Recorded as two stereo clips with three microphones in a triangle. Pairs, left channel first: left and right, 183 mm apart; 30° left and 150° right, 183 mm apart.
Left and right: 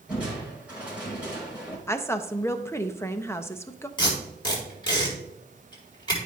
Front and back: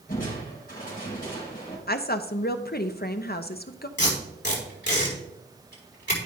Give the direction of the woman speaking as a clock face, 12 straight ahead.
11 o'clock.